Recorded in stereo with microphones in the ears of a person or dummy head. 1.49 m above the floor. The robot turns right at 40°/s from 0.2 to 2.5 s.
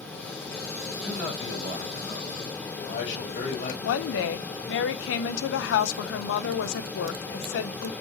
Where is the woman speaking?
75° left (ahead or behind), 0.7 m.